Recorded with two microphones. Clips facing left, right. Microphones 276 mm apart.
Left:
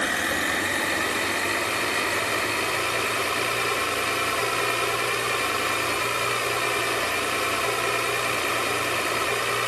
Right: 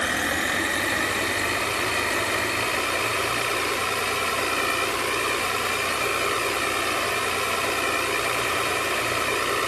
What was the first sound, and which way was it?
Only background noise.